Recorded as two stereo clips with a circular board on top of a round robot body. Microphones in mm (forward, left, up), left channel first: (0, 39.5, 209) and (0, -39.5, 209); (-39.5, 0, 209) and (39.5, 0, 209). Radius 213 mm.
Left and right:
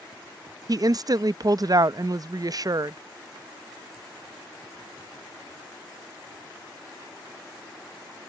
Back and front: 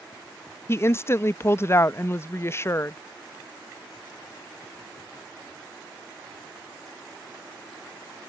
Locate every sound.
0.7 s a woman speaking: 125° right